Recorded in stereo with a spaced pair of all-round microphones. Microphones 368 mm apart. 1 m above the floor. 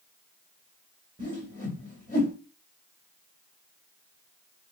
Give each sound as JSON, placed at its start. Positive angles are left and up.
{"t": 1.2, "sound": "a whoosh", "side_deg": 20, "distance_m": 1.5}